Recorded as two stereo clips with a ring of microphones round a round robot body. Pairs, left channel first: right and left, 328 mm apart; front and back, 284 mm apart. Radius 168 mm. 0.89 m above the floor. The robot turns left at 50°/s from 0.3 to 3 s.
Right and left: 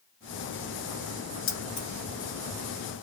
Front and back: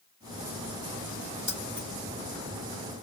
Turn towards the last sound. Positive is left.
turn(degrees=-165)